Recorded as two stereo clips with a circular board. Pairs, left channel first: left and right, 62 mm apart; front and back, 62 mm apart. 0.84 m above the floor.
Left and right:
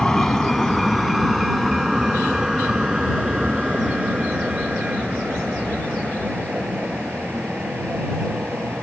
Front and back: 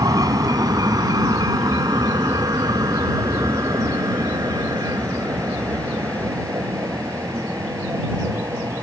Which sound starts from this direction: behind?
A vehicle, at 0.0 s.